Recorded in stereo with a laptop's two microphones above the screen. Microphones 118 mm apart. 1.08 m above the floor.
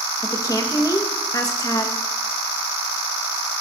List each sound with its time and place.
0.2 s a woman speaking: 30° left (ahead or behind), 0.7 m